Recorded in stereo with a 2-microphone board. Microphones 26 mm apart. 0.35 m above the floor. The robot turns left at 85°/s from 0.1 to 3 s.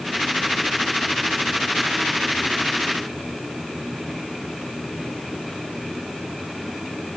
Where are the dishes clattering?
No dishes clattering in this recording.